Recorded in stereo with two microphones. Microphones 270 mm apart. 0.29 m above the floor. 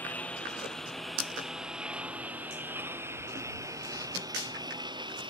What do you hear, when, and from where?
0.0 s a lawn mower: 5° left (ahead or behind); by 5.3 s 20° right (ahead or behind)